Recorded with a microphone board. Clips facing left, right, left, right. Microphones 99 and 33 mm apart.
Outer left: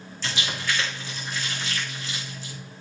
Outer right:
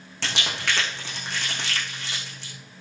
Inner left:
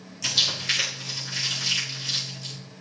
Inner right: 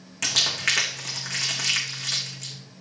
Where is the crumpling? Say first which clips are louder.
Outer right 1 dB, inner right 1 dB; 65° right (ahead or behind), 6 m.